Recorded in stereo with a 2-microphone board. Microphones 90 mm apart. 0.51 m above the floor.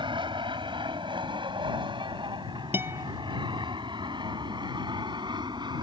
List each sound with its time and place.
0.0 s an aircraft: 65° right (ahead or behind); by 5.8 s 55° right (ahead or behind)
2.7 s a guitar: 25° right (ahead or behind)